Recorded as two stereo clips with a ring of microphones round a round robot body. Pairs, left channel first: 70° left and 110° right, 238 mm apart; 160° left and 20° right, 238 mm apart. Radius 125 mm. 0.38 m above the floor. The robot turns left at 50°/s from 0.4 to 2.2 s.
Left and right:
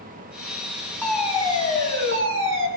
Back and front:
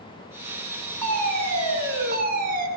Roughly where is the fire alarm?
Ahead.